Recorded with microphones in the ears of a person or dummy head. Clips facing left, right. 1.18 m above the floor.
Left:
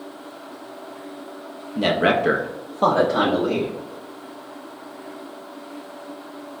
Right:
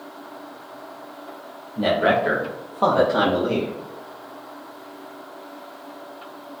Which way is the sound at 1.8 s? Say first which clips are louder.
Even; 30° left (ahead or behind).